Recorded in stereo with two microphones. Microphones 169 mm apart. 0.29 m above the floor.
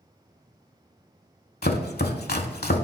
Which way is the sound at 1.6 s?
85° left.